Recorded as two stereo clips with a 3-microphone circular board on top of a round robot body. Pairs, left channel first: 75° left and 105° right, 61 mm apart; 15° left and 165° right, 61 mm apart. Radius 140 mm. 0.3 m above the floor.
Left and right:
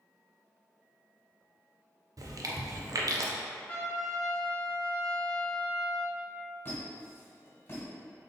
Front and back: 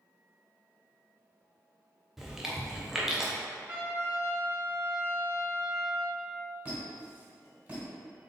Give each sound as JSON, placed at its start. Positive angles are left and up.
{"t": 2.2, "sound": "chewing", "azimuth_deg": -80, "distance_m": 0.5}
{"t": 3.7, "sound": "a trumpet", "azimuth_deg": 135, "distance_m": 1.8}
{"t": 6.7, "sound": "a squeak", "azimuth_deg": 130, "distance_m": 1.8}